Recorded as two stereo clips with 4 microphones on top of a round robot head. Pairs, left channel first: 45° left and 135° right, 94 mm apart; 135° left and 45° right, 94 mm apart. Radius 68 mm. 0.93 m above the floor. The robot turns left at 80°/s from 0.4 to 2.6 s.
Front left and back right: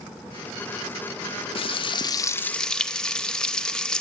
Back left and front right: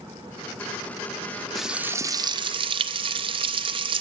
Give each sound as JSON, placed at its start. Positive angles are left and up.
{"t": 1.6, "sound": "frying", "azimuth_deg": 45, "distance_m": 0.6}